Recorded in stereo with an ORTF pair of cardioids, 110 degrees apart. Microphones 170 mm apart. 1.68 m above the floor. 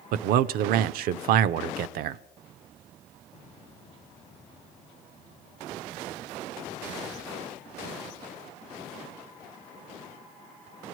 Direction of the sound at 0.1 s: 70° right.